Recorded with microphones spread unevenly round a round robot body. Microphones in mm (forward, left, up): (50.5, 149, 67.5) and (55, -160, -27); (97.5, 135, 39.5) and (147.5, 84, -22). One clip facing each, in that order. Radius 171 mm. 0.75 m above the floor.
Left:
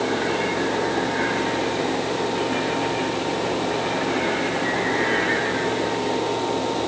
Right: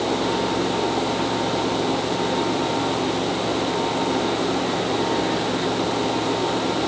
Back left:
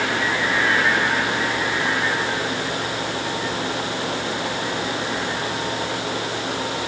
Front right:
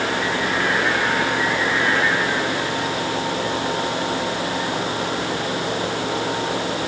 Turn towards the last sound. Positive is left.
No sound to turn to.